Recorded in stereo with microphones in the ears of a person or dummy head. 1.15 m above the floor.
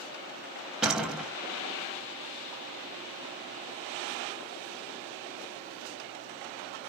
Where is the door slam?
10° right (ahead or behind), 1.2 m.